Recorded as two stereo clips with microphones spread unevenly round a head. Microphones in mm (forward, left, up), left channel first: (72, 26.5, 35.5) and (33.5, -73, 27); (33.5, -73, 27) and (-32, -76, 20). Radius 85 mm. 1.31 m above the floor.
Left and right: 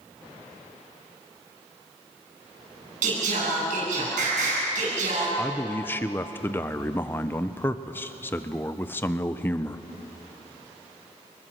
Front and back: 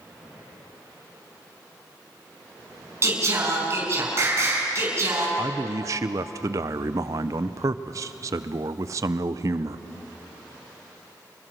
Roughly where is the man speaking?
Behind left.